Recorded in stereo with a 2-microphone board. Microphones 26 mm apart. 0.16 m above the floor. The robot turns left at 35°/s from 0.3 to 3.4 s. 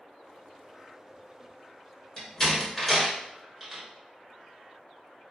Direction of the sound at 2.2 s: 25° left (ahead or behind).